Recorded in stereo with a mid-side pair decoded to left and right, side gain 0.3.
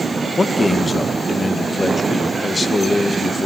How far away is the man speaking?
About 1.9 m.